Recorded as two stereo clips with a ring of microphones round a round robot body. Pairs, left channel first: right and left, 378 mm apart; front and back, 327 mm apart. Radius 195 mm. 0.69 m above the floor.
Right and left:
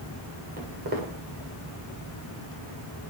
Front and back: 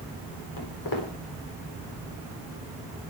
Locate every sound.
0.6 s footsteps: 20° left, 10 m